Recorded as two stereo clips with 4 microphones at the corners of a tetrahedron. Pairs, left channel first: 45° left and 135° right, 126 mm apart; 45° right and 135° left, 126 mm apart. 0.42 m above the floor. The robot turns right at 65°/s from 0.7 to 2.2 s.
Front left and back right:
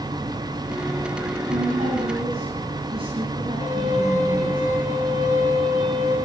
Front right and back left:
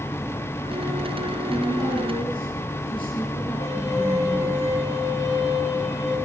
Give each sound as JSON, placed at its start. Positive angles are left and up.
{"t": 1.5, "sound": "a woman speaking", "azimuth_deg": -135, "distance_m": 3.0}
{"t": 3.6, "sound": "a violin", "azimuth_deg": 15, "distance_m": 9.5}